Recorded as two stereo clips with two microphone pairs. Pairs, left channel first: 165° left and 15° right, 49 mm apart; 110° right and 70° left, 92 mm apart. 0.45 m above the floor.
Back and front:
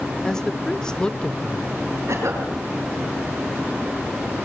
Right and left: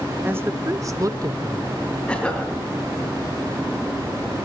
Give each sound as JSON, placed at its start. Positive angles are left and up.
{"t": 0.2, "sound": "a woman speaking", "azimuth_deg": 110, "distance_m": 1.1}
{"t": 2.1, "sound": "a cough", "azimuth_deg": -35, "distance_m": 5.5}